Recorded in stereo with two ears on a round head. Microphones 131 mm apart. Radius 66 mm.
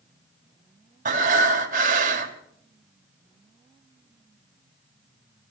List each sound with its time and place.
1.1 s breathing: 55° right (ahead or behind), 2.5 m